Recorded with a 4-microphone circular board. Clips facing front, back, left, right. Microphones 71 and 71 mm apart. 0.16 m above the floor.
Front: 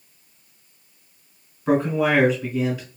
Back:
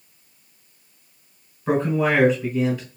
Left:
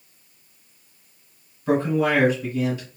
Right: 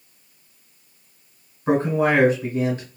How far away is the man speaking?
About 2.0 m.